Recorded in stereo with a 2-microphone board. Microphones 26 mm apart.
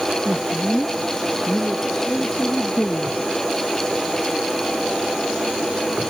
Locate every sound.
0.2 s a man speaking: 5° left (ahead or behind); by 3.3 s 60° left (ahead or behind)